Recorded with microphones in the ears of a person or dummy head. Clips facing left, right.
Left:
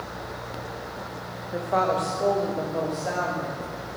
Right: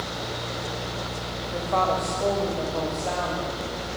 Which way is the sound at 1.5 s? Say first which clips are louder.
Left 1 dB; 5° left (ahead or behind).